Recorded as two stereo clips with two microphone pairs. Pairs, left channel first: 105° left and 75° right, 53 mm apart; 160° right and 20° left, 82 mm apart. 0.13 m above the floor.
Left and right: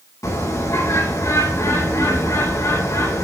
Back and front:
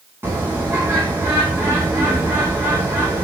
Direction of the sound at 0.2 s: 85° left.